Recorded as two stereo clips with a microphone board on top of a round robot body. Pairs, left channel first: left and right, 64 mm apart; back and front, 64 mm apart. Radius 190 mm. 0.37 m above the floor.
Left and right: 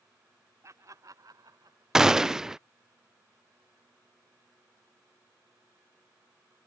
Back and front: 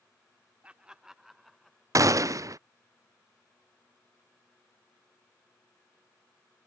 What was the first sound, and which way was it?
Laughter, 70° right.